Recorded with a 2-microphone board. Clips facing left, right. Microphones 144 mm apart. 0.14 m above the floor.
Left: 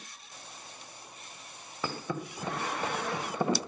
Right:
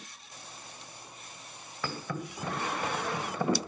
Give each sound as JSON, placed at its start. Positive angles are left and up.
{"t": 1.8, "sound": "a thud", "side_deg": 20, "distance_m": 2.5}